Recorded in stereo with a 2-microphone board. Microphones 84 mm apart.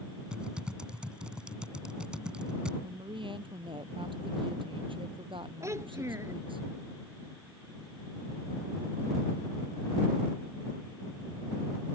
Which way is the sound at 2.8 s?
75° right (ahead or behind).